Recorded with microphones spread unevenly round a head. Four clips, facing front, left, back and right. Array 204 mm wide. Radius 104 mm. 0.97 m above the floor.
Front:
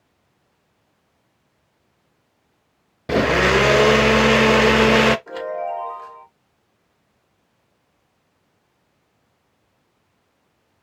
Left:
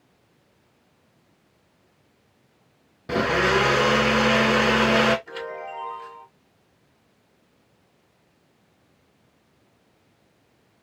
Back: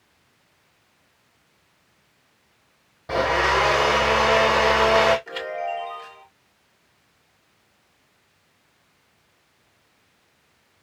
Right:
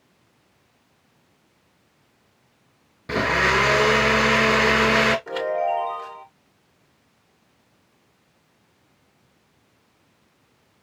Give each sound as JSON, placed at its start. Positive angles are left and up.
{"t": 3.1, "sound": "a blender", "azimuth_deg": 5, "distance_m": 0.5}
{"t": 5.3, "sound": "a chime", "azimuth_deg": -80, "distance_m": 2.5}